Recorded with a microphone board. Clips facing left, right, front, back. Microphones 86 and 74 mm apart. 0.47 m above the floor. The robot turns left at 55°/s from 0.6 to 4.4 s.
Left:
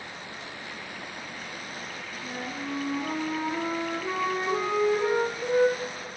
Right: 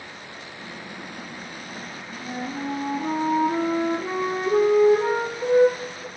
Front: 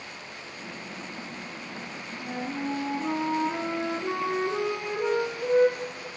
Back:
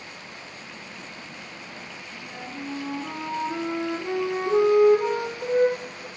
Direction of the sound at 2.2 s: 20° right.